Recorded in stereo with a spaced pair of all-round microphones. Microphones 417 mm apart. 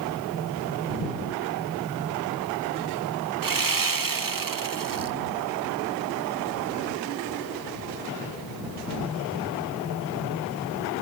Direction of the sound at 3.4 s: 50° right (ahead or behind).